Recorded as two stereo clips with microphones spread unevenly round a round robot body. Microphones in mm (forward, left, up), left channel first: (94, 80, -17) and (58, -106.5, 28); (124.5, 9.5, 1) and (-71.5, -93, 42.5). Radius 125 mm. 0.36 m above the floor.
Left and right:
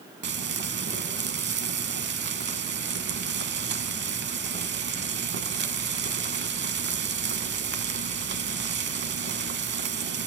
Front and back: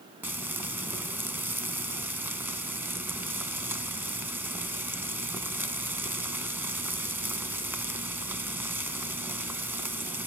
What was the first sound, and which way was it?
Frying, 70° right.